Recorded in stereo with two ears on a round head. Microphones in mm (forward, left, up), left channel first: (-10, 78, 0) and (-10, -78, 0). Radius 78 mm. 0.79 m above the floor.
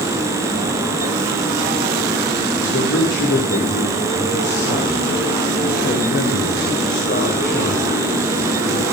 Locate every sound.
2.6 s a man speaking: 75° left (ahead or behind), 3 m; by 8.9 s 40° left (ahead or behind), 4.5 m